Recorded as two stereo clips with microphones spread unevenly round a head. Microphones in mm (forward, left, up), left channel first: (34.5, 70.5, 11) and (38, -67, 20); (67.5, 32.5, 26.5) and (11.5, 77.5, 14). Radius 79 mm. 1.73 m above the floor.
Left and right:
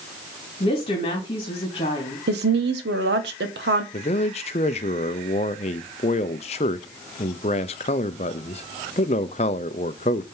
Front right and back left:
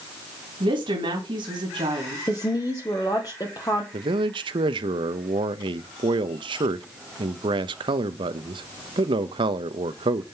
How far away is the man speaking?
About 0.7 m.